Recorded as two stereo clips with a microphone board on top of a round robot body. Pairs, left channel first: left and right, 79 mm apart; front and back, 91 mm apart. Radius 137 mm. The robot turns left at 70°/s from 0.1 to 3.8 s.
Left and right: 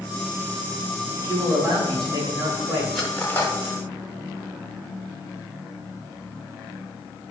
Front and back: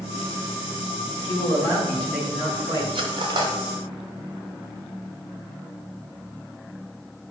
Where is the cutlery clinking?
175° right, 1.4 m; by 3.5 s 145° left, 1.4 m.